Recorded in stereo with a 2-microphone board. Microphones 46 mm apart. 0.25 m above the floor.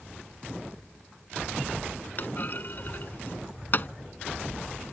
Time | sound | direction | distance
2.2 | a clunk | 45° left (ahead or behind) | ?